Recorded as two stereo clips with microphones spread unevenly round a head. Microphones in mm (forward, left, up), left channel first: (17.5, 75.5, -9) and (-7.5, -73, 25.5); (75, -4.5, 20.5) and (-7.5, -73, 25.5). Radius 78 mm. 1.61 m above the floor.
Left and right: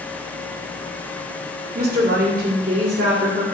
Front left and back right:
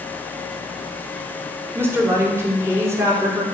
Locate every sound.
1.8 s a woman speaking: 70° right, 5 m; by 3.4 s 80° right, 5.5 m